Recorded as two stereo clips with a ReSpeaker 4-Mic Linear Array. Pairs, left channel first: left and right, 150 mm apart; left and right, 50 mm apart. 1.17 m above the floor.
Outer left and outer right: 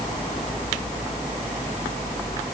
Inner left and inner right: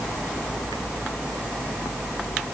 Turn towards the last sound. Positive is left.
No sound to turn to.